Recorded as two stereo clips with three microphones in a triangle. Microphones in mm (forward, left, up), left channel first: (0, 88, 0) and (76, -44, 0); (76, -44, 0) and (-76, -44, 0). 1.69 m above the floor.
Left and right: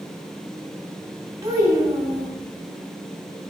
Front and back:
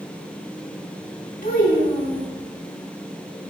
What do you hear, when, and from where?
1.4 s a child speaking: 5° left, 3 m